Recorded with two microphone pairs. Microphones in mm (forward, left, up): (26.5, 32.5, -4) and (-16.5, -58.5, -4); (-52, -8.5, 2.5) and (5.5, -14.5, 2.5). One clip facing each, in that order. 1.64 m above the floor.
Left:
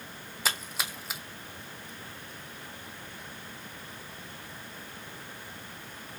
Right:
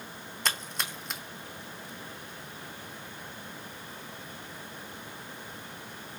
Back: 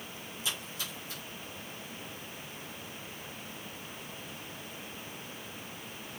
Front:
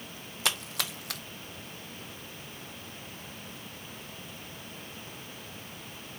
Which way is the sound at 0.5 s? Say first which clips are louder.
Even, front 7 dB; 20° right.